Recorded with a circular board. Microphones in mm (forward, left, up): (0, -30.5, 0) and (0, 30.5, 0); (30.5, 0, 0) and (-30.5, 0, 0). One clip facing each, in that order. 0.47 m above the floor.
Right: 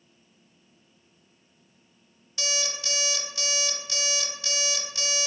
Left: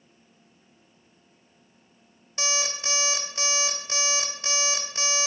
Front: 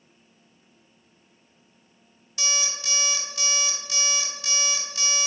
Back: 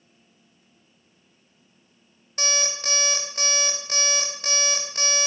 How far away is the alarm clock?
About 0.6 m.